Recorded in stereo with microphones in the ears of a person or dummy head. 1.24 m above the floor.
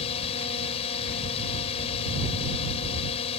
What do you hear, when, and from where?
0.0 s a drone: 35° left (ahead or behind)